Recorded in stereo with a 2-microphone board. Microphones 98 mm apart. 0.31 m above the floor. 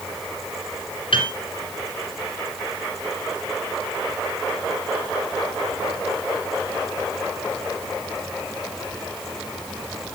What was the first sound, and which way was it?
A piano, 65° left (ahead or behind).